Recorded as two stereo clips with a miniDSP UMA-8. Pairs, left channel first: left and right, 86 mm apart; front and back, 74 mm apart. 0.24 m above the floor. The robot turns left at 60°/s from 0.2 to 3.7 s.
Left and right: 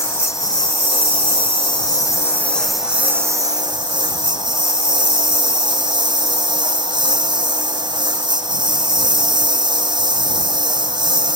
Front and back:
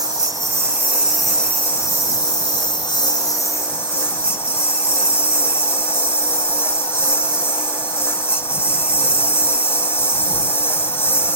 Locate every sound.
0.0 s a lawn mower: 150° left; by 11.3 s 60° right